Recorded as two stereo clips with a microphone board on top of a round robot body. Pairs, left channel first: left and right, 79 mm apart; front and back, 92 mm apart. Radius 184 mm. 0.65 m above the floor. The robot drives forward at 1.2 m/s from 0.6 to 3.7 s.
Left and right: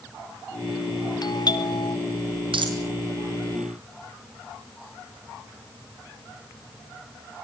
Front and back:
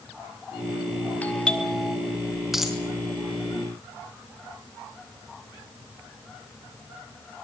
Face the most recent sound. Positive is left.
turn(degrees=-115)